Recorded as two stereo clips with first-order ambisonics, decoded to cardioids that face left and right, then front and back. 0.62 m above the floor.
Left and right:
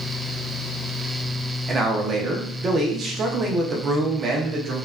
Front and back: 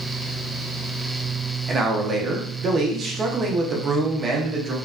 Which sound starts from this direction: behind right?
A man speaking, at 1.7 s.